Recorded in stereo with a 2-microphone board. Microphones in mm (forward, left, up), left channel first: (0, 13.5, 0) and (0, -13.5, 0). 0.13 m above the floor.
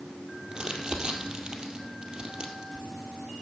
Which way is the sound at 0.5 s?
30° right (ahead or behind).